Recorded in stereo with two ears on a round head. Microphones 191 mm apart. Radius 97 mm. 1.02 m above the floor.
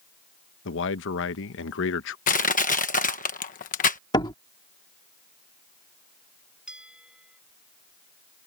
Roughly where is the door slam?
Centre.